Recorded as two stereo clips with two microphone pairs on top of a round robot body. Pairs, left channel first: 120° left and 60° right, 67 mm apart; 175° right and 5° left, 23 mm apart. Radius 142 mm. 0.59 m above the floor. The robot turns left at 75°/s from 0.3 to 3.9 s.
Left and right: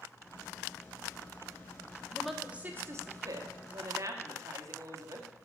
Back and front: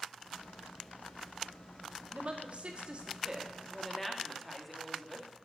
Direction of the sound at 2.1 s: 45° left.